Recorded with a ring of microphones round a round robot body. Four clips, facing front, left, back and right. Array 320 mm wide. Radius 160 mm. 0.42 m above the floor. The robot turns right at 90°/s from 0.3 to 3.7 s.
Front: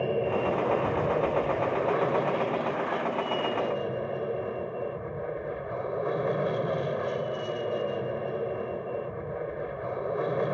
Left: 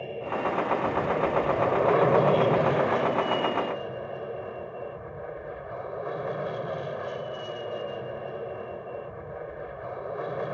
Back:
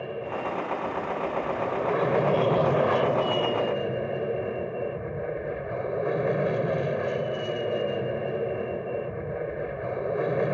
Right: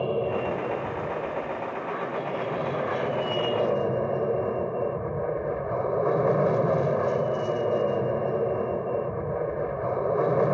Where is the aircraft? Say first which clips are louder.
Right 4 dB, front 5 dB; 55° right; by 10.6 s 110° right.